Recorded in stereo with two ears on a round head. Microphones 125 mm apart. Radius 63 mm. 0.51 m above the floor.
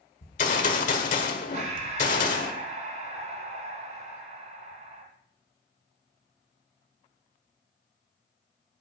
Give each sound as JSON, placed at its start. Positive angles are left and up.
{"t": 0.2, "sound": "a gunshot", "side_deg": 60, "distance_m": 1.5}
{"t": 1.5, "sound": "breathing", "side_deg": -55, "distance_m": 3.0}